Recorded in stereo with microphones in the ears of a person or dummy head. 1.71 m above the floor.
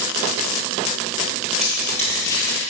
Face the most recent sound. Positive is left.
turn(degrees=25)  # may be behind; listen again after turning